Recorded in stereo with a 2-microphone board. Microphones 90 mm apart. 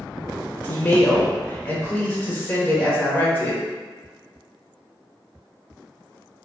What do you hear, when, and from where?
0.6 s a woman speaking: 20° left (ahead or behind), 0.8 m